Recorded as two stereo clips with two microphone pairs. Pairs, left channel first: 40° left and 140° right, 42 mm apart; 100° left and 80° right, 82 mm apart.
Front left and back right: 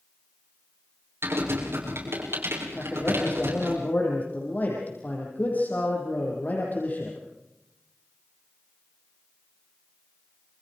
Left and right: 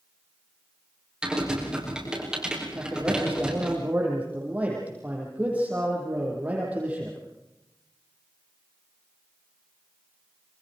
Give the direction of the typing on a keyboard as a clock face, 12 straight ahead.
5 o'clock.